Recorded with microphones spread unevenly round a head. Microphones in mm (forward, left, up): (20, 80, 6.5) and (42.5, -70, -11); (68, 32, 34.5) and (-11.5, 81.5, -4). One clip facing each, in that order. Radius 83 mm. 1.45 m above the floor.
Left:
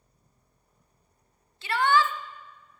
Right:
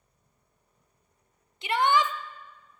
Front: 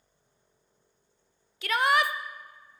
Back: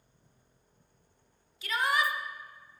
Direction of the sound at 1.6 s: 10° right.